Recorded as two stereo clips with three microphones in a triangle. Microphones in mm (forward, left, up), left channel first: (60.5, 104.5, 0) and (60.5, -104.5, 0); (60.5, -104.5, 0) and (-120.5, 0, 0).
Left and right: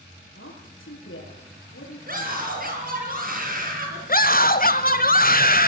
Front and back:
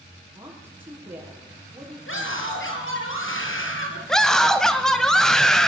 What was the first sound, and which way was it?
A woman speaking, 70° left.